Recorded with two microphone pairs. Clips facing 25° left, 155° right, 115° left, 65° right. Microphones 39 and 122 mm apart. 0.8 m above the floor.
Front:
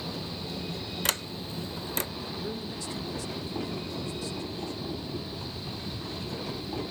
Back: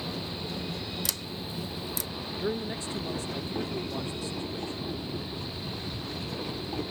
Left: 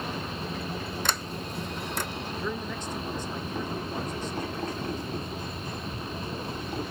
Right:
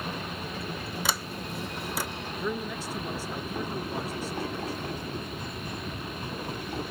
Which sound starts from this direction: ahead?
A sliding door, at 1.1 s.